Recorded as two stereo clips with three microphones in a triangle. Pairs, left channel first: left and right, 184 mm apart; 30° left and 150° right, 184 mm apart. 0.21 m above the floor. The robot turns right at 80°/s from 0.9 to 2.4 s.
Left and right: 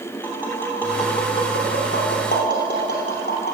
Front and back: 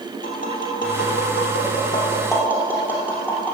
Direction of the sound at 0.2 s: 10° right.